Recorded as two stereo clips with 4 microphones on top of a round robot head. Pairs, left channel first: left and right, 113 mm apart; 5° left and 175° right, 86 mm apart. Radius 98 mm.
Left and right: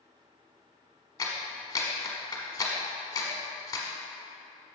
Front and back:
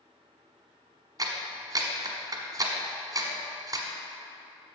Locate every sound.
1.2 s a clap: 150° left, 1.4 m